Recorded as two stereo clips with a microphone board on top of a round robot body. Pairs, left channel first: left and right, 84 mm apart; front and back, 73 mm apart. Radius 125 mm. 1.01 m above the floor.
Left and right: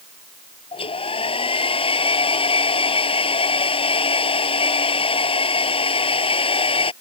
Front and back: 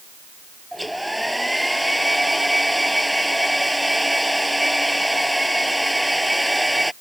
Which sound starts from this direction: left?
A hair dryer, at 0.7 s.